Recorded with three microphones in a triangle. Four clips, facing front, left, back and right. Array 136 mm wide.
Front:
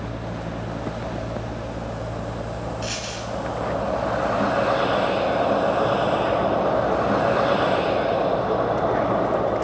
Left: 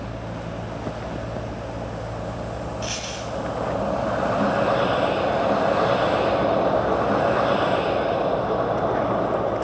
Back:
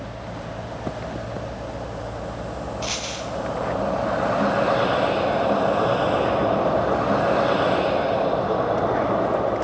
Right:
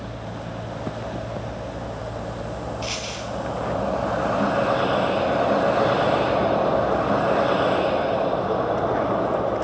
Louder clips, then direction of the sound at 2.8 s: Even, back 1 dB; 155° right.